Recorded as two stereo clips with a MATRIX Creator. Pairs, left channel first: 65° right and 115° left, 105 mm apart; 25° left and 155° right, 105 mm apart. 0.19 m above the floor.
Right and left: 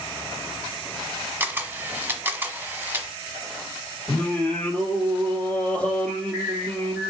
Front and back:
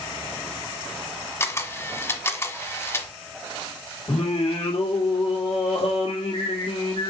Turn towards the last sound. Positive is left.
turn(degrees=10)